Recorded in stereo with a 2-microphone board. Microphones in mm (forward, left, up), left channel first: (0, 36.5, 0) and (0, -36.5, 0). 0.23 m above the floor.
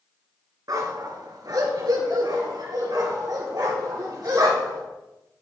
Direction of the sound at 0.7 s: 60° right (ahead or behind).